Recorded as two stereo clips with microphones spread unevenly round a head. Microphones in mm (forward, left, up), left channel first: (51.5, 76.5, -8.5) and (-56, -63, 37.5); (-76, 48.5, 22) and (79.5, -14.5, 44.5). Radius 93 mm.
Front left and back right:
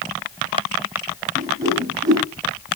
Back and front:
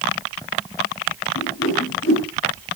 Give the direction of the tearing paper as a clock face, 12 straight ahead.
I don't hear tearing paper.